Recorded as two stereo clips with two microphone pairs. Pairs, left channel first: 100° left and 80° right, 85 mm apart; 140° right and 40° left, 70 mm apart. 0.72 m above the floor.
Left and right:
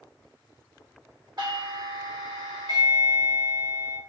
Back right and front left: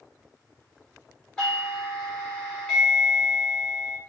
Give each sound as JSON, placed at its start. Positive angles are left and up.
{"t": 1.4, "sound": "a doorbell", "azimuth_deg": -65, "distance_m": 2.5}